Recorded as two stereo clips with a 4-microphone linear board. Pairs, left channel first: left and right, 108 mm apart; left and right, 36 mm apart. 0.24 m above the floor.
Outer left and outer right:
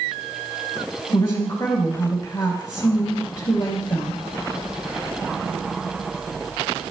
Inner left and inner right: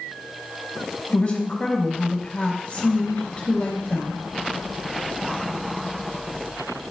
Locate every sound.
1.1 s a woman speaking: 30° left (ahead or behind), 3 m